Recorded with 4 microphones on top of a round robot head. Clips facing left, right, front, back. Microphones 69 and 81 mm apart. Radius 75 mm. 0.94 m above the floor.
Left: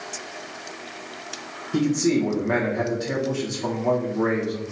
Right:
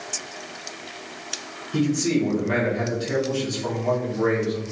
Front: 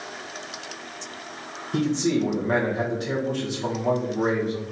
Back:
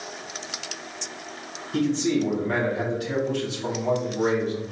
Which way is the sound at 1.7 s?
40° left.